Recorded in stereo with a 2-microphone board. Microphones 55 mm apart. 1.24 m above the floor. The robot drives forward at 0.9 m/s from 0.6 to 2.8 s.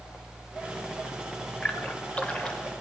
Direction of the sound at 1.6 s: 20° left (ahead or behind).